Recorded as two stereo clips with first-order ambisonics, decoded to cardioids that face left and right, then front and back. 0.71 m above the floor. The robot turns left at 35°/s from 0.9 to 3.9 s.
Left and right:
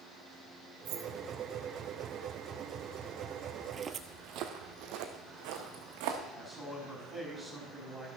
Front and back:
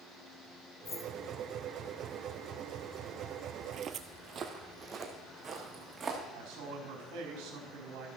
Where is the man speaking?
170° left, 4.5 m.